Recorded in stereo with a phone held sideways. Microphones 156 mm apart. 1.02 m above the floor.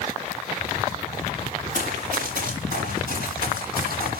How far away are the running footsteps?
About 5.5 m.